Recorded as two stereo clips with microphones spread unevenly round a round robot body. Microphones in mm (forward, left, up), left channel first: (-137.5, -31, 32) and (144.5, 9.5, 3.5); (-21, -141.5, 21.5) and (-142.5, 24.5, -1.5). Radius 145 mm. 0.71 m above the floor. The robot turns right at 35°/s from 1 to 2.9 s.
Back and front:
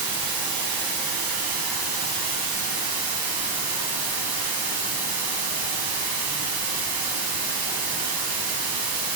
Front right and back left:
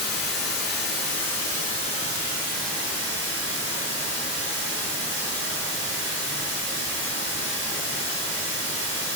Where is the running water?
25° right, 3 m; by 9.2 s 45° left, 3 m.